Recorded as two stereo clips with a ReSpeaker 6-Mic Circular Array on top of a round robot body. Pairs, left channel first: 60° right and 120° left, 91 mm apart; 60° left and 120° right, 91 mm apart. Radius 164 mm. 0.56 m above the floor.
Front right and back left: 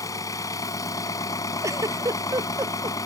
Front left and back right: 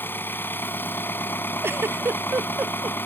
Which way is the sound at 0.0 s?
10° right.